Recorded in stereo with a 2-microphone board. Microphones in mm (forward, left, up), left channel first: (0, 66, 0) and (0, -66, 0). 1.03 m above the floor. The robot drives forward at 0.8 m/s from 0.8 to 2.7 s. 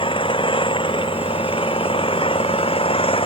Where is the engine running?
45° left (ahead or behind).